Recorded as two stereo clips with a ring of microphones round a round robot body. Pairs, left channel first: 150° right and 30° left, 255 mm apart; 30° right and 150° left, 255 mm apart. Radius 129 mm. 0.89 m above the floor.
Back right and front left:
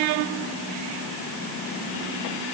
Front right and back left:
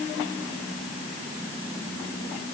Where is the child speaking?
No child speaking in this recording.